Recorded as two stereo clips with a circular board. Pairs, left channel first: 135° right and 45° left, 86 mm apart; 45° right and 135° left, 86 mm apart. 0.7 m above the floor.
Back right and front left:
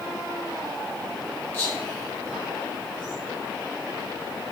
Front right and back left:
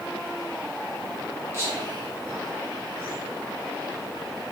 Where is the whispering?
175° left, 1.2 m.